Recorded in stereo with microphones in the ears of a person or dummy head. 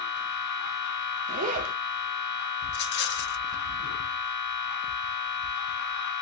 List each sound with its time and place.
0.0 s a machine running: 60° left (ahead or behind), 0.7 m
1.3 s a zipper: 35° right (ahead or behind), 0.5 m
2.7 s a rattle: 50° left (ahead or behind), 0.6 m